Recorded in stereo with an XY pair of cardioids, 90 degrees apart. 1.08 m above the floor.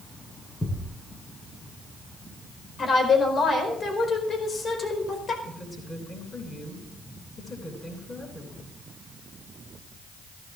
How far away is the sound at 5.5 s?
About 10 m.